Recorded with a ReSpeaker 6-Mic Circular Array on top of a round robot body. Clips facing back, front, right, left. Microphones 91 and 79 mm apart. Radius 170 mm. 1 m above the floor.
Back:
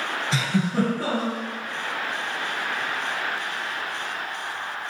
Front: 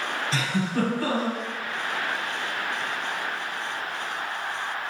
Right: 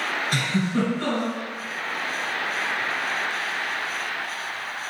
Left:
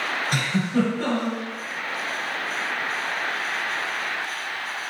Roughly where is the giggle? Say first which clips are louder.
Back 3 dB, left 2 dB; behind.